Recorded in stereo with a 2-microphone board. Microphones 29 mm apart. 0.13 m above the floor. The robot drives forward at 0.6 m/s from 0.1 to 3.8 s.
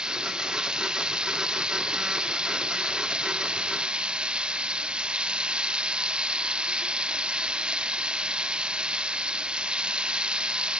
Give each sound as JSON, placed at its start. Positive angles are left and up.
{"t": 0.0, "sound": "running water", "side_deg": -30}